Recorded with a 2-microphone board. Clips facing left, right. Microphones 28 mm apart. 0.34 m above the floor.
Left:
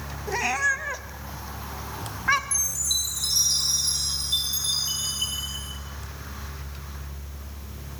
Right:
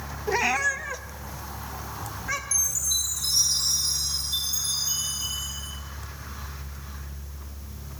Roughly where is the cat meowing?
Centre.